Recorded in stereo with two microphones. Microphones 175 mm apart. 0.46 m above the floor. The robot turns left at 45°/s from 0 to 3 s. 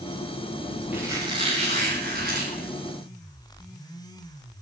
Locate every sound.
0.9 s a squeak: 10° right, 10 m; by 2.7 s 90° right, 10 m